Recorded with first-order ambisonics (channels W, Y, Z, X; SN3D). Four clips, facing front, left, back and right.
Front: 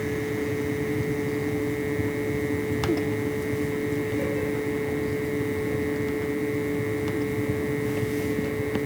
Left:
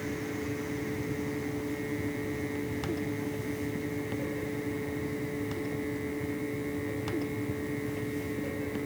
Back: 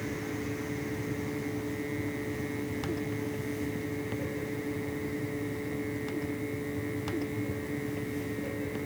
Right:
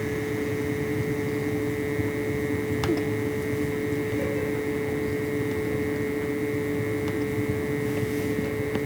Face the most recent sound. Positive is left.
No sound to turn to.